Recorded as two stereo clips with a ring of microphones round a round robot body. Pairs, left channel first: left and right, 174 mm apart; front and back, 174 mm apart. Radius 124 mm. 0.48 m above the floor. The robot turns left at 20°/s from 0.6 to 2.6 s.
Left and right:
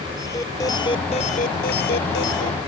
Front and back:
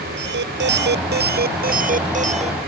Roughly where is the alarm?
Behind.